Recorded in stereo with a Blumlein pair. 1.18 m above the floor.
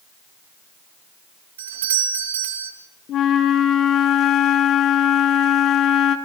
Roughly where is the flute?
Ahead left.